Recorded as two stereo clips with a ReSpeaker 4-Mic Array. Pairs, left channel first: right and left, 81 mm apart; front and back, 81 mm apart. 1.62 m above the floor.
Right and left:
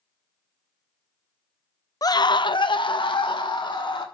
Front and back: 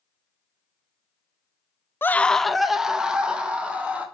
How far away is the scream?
About 0.5 m.